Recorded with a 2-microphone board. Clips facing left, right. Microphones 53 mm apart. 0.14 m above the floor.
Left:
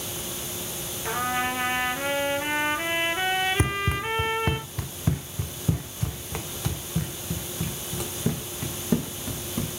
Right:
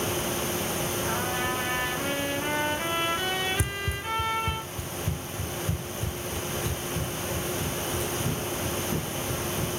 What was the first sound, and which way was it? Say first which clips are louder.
A trumpet: left 6 dB; 40° left (ahead or behind).